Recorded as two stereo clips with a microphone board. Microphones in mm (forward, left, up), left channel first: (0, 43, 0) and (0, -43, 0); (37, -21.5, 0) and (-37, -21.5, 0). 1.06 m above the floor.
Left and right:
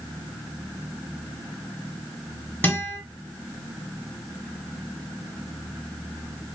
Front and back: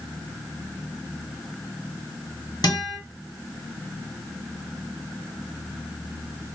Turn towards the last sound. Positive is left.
turn(degrees=20)